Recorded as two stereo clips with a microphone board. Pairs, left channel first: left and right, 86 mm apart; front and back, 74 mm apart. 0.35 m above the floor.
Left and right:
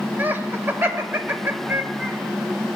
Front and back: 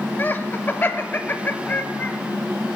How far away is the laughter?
About 1.0 m.